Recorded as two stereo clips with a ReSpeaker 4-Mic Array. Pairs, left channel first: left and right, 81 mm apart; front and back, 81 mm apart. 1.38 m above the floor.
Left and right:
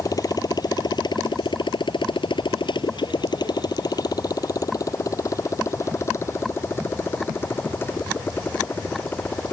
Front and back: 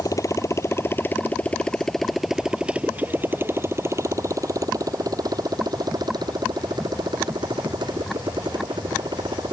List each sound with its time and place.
0.0 s a motorcycle: 45° left; by 9.5 s 155° left